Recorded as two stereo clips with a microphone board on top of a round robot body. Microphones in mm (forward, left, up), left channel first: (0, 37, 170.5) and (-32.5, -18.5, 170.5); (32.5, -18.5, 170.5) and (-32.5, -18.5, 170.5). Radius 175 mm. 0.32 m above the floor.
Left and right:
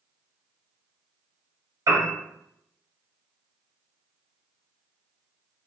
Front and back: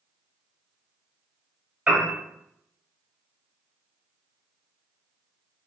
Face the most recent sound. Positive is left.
turn(degrees=-110)